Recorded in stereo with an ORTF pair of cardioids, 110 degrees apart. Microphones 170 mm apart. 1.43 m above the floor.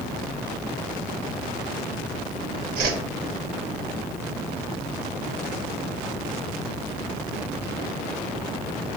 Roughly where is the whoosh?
Ahead right.